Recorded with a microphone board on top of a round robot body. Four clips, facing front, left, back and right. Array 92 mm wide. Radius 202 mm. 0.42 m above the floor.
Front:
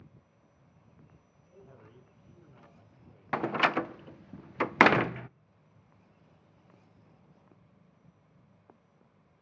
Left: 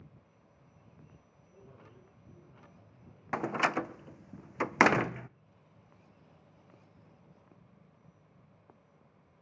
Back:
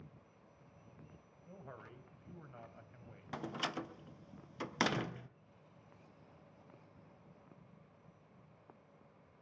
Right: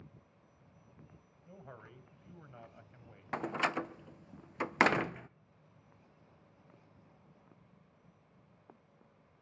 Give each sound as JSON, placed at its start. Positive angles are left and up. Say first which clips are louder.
{"t": 1.5, "sound": "a man speaking", "louder": "right 4 dB, back 2 dB", "azimuth_deg": -130, "distance_m": 3.0}
{"t": 3.3, "sound": "a door slam", "louder": "left 4 dB, front 14 dB", "azimuth_deg": 20, "distance_m": 0.6}